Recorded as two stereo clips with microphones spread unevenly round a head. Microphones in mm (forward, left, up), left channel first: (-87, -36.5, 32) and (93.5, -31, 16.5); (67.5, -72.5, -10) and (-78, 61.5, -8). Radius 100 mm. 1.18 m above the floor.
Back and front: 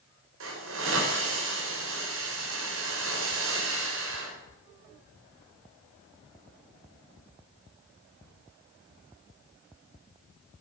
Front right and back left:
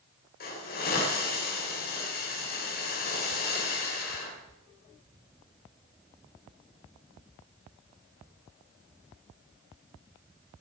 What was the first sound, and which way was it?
A hiss, 5° left.